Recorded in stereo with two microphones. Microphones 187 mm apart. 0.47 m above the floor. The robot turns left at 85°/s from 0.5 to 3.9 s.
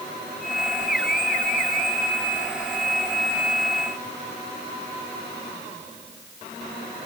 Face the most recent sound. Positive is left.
No sound to turn to.